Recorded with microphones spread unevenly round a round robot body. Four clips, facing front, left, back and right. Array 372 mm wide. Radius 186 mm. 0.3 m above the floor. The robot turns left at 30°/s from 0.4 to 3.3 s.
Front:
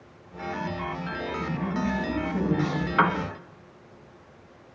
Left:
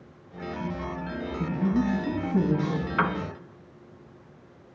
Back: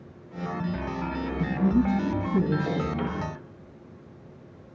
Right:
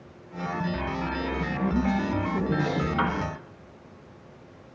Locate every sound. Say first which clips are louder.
1.4 s a woman speaking: left 3 dB, back 7 dB; 170° left, 2 m; by 2.9 s 130° left, 2 m
3.0 s a piano: left 3 dB, front 8 dB; 10° left, 0.9 m; by 3.2 s straight ahead, 0.9 m